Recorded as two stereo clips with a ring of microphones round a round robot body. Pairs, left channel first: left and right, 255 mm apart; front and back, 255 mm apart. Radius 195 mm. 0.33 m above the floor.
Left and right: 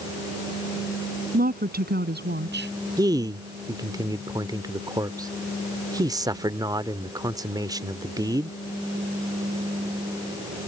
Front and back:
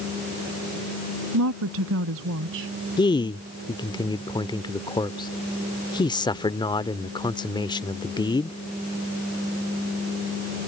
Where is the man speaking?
40° right.